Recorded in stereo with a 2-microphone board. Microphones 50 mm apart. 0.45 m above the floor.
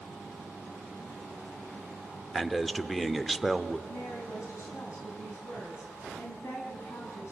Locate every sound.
2.3 s a man speaking: centre (ahead or behind), 0.9 m
3.9 s a woman speaking: 75° left (ahead or behind), 3.5 m